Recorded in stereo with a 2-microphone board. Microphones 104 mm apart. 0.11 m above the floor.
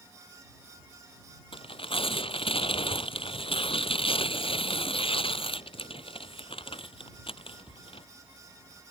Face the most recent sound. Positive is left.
turn(degrees=60)  # may be behind; listen again after turning